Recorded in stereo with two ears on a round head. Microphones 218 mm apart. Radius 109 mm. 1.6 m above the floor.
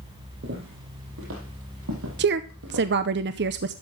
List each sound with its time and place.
0.4 s footsteps: 50° right (ahead or behind), 3.5 m; by 2.9 s 70° right (ahead or behind), 4.5 m
2.2 s a woman speaking: 45° right (ahead or behind), 0.6 m